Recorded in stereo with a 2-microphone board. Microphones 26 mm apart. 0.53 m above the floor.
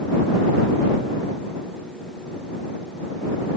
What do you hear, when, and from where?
Only background noise.